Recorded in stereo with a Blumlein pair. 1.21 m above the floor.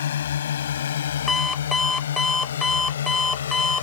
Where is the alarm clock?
15° left.